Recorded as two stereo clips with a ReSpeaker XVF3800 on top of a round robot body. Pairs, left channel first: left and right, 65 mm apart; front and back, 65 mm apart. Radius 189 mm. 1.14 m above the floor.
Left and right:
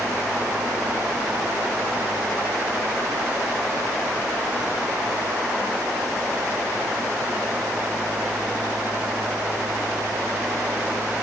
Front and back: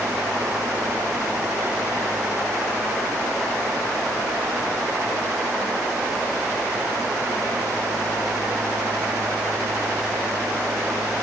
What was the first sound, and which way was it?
Only background noise.